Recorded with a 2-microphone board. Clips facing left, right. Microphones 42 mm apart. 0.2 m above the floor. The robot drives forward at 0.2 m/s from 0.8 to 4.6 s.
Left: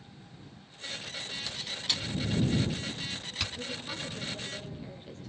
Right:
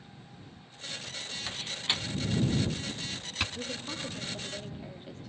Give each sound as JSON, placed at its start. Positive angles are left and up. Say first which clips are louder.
{"t": 1.5, "sound": "a door slam", "louder": "right 3 dB", "side_deg": -30, "distance_m": 1.0}
{"t": 3.5, "sound": "a woman speaking", "louder": "even", "side_deg": -10, "distance_m": 6.5}